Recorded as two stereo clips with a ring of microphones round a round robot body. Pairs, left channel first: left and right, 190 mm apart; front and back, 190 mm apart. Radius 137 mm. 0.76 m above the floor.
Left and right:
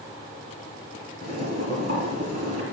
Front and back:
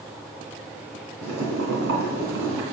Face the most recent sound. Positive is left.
turn(degrees=-155)